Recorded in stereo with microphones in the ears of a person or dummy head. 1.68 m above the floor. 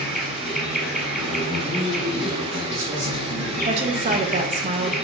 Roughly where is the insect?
Centre.